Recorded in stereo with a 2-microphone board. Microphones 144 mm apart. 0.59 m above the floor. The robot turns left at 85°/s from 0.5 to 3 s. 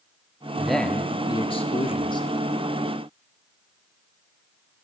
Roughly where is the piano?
I don't hear a piano.